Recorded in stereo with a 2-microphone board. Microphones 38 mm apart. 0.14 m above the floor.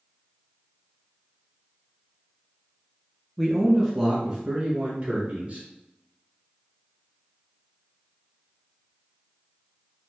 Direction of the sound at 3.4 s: 5° left (ahead or behind).